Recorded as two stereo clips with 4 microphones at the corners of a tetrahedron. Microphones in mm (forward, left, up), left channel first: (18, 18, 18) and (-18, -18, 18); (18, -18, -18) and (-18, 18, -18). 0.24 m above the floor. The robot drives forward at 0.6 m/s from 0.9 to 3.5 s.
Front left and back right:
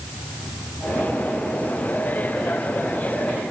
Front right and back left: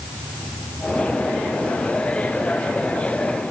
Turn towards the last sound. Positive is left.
No sound to turn to.